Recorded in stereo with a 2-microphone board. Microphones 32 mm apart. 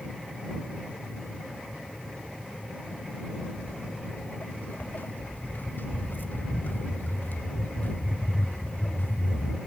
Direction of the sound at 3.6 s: 70° left (ahead or behind).